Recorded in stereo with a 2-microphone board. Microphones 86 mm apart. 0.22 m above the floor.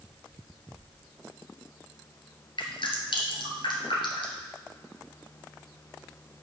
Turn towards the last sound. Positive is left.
turn(degrees=70)  # may be behind; listen again after turning